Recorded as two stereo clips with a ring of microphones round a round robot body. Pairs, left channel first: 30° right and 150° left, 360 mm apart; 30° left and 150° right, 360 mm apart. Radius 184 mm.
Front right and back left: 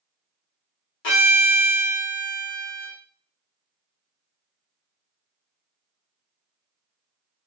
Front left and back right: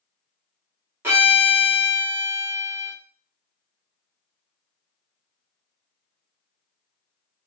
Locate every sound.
1.0 s a violin: 65° right, 1.1 m